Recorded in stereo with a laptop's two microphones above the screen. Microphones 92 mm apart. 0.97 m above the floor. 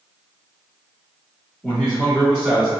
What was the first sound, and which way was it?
A man speaking, 5° left (ahead or behind).